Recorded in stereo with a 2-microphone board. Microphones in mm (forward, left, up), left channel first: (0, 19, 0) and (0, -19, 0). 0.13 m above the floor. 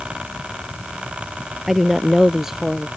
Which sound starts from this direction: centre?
A woman speaking, at 1.7 s.